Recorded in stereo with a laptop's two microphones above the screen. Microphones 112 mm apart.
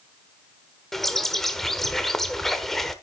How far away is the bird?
About 1.1 m.